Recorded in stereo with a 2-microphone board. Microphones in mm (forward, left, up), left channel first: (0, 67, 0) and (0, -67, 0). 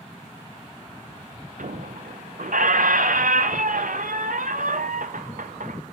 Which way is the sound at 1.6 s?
85° right.